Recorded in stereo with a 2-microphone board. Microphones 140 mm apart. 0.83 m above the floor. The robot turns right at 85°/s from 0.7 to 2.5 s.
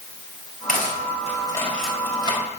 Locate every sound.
0.7 s cutlery clinking: 80° left, 3 m; by 2.4 s 45° right (ahead or behind), 3 m